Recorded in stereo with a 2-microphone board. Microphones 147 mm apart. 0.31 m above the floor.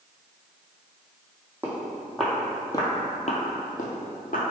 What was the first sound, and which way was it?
Footsteps, 15° right (ahead or behind).